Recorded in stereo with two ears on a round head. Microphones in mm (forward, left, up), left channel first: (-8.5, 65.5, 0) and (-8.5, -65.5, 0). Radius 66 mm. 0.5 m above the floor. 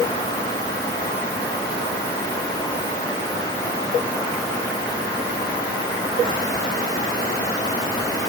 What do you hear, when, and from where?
Only background noise.